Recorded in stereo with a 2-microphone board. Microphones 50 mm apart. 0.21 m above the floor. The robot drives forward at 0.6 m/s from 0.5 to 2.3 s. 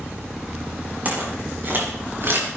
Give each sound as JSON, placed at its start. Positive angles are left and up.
{"t": 1.1, "sound": "footsteps", "side_deg": -35, "distance_m": 6.5}